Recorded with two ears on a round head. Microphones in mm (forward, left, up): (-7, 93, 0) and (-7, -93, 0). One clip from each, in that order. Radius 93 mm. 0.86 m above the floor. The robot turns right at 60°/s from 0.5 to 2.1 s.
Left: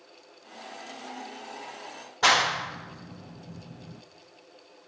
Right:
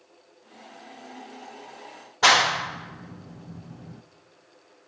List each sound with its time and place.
2.2 s a clap: 10° right (ahead or behind), 0.6 m